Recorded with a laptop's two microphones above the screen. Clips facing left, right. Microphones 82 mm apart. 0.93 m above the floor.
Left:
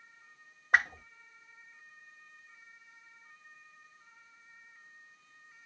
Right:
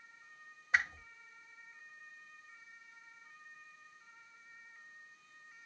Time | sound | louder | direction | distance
0.7 | a whoosh | left 6 dB | 60° left (ahead or behind) | 0.8 m